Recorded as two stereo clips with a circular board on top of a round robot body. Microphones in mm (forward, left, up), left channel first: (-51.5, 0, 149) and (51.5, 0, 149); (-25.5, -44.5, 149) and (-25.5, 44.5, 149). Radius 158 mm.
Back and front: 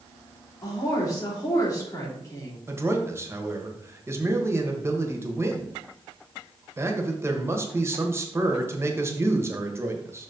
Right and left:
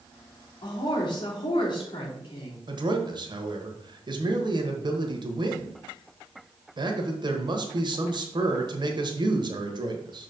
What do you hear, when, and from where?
0.6 s a woman speaking: 120° right, 3 m
2.7 s a man speaking: 65° left, 1.4 m